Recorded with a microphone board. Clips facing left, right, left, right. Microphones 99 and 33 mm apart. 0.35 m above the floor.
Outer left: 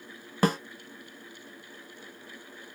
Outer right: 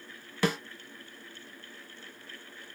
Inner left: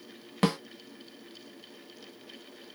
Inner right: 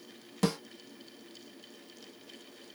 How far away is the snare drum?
About 0.6 m.